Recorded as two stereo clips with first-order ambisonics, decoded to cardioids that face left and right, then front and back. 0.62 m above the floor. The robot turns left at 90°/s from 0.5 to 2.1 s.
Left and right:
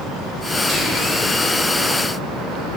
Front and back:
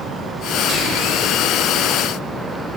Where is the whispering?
145° right, 0.7 m; by 1.2 s 170° left, 0.7 m.